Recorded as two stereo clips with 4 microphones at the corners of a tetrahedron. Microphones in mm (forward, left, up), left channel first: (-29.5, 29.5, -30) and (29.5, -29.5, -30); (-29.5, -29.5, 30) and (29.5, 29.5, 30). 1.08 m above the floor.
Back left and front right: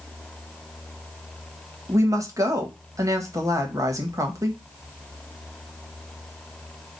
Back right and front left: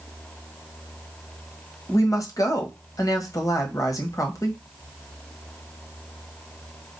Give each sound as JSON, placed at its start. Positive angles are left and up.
{"t": 1.9, "sound": "a woman speaking", "azimuth_deg": -90, "distance_m": 1.3}